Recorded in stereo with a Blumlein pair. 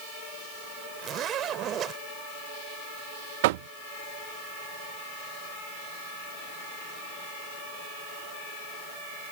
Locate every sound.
1.0 s a zipper: 30° right
3.4 s knocking: 50° right